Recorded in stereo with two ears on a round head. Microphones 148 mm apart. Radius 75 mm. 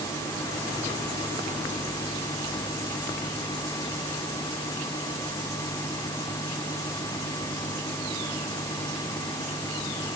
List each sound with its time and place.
Only background noise.